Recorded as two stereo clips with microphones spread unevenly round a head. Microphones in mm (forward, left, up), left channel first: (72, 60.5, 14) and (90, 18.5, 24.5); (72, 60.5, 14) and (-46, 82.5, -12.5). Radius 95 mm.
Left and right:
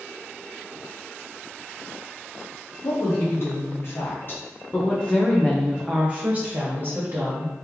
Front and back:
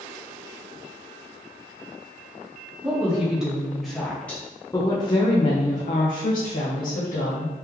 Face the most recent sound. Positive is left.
turn(degrees=-30)